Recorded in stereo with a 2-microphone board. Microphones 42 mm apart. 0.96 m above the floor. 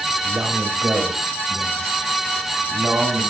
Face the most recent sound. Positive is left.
turn(degrees=-65)  # may be behind; listen again after turning